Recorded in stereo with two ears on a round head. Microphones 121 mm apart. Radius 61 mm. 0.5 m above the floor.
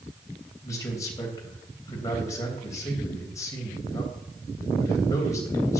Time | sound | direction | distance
0.6 | a man speaking | 25° left (ahead or behind) | 3 m